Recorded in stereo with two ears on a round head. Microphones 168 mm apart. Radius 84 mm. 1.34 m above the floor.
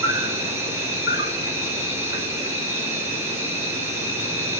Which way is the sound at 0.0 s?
15° right (ahead or behind).